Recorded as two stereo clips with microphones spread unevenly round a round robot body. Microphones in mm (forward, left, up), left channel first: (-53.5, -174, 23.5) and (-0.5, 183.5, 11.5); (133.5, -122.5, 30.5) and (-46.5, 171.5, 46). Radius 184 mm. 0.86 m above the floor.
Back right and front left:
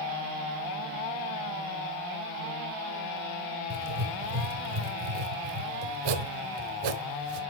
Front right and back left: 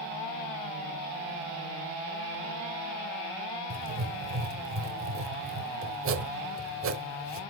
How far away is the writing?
About 1.0 m.